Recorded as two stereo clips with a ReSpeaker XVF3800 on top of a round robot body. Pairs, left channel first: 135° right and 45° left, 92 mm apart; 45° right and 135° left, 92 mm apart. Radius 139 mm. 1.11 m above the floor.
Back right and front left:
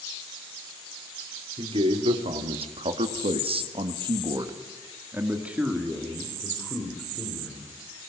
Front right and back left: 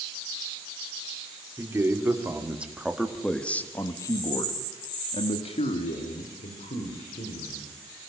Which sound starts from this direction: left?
A man speaking, at 1.6 s.